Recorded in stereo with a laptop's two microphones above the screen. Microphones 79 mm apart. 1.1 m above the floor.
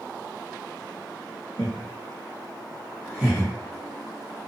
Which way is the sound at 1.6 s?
80° right.